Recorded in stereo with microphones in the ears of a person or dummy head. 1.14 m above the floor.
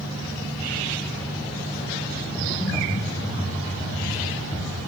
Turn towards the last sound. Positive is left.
turn(degrees=15)  # may be behind; listen again after turning